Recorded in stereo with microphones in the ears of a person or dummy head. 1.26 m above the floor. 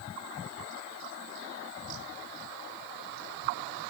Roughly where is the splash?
I don't hear a splash.